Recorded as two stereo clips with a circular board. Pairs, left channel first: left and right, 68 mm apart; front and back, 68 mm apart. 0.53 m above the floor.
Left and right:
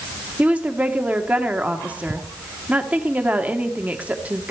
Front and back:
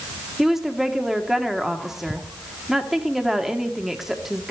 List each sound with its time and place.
0.4 s a woman speaking: 100° right, 1.3 m